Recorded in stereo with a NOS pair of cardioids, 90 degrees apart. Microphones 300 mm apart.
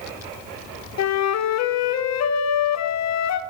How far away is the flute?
About 0.6 m.